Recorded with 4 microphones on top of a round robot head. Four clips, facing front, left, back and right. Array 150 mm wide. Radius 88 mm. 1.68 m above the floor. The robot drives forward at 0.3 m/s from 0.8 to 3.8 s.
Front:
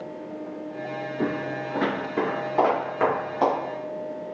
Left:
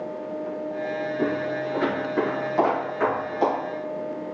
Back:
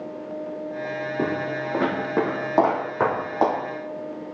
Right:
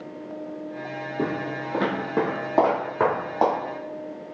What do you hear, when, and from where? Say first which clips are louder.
1.2 s footsteps: even, back 1 dB; 160° right, 2.5 m; by 3.5 s 135° right, 4.5 m